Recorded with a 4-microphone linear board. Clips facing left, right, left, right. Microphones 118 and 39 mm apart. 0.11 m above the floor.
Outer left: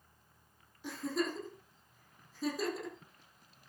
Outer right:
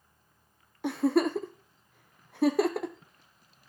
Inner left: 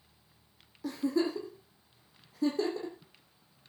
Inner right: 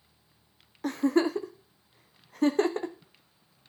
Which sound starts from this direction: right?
A giggle, at 0.8 s.